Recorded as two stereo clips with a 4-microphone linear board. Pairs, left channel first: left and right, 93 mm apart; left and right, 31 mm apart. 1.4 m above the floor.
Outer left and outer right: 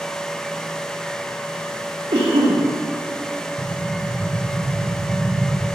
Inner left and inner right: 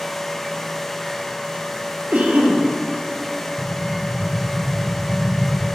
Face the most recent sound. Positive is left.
turn(degrees=-35)  # may be behind; listen again after turning